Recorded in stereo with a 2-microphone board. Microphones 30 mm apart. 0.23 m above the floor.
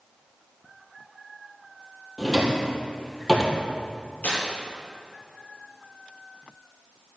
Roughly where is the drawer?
Centre.